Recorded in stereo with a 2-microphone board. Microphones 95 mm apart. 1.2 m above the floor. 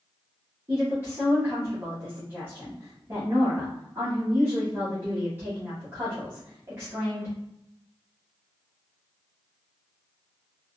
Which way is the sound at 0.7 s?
25° right (ahead or behind).